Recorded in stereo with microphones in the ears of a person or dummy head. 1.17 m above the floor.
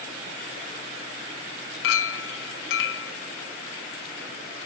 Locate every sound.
1.8 s a clink: 65° left (ahead or behind), 0.6 m